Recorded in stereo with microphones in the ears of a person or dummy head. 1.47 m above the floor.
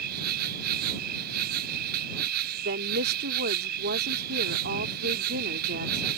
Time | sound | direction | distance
0.0 | an insect | 50° right (ahead or behind) | ?
2.6 | a woman speaking | 60° right (ahead or behind) | ?